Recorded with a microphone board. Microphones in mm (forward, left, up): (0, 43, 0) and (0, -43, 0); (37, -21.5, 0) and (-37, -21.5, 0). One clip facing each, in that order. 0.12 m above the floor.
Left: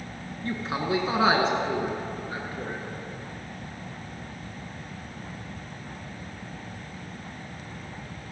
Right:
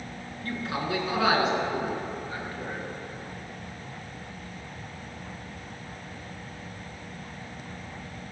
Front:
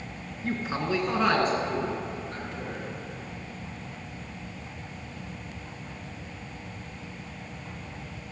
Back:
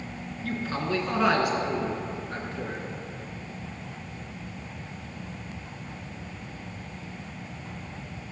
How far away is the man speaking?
About 1.6 m.